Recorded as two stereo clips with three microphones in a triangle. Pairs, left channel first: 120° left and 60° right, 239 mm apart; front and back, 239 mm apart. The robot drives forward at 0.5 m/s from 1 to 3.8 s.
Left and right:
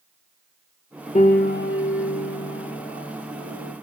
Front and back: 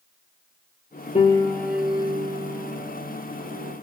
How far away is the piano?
About 0.6 m.